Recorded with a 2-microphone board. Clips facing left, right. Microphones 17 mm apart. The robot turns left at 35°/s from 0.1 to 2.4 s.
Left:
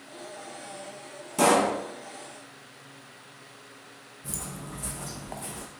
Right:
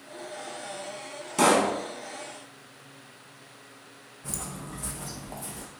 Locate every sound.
1.4 s a pop: 25° right (ahead or behind), 0.8 m
4.2 s footsteps: 35° right (ahead or behind), 0.6 m; by 5.7 s 40° left (ahead or behind), 0.8 m